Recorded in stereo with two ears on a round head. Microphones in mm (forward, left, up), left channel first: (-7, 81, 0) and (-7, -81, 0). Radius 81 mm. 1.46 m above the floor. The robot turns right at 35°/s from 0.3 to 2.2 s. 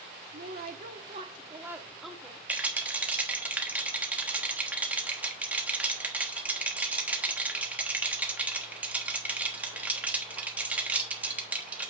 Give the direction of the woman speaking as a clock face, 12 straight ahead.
2 o'clock.